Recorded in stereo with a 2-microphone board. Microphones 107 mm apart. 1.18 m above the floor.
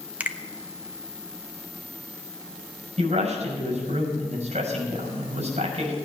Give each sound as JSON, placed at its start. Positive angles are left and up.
{"t": 0.2, "sound": "a finger snap", "side_deg": -15, "distance_m": 0.7}
{"t": 3.0, "sound": "a man speaking", "side_deg": -85, "distance_m": 6.0}